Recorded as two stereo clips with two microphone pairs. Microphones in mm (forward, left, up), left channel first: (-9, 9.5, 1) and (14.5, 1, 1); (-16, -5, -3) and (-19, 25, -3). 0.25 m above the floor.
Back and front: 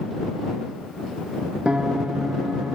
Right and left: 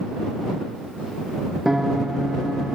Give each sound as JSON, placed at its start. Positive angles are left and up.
{"t": 1.6, "sound": "a piano", "azimuth_deg": 20}